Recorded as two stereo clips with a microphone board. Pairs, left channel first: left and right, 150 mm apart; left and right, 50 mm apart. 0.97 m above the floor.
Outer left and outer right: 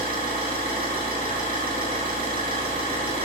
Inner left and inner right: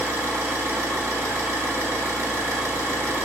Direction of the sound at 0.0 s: 85° right.